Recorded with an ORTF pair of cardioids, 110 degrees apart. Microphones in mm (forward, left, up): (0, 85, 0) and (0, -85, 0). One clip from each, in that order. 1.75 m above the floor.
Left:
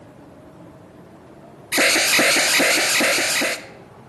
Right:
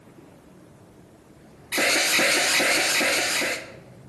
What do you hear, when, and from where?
1.7 s an alarm: 25° left, 0.6 m